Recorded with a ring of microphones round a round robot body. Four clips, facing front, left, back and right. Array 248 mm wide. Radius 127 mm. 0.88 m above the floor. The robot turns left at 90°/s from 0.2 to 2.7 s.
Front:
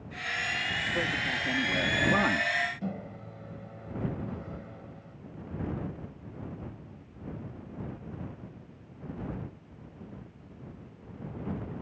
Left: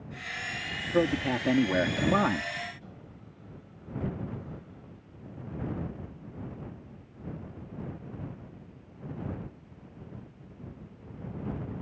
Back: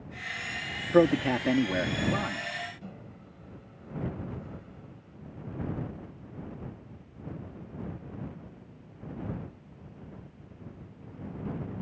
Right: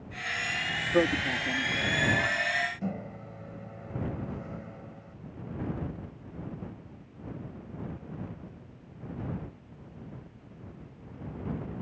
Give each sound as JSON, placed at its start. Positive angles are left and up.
{"t": 0.9, "sound": "a man speaking", "azimuth_deg": -175}
{"t": 2.8, "sound": "a microwave", "azimuth_deg": -55}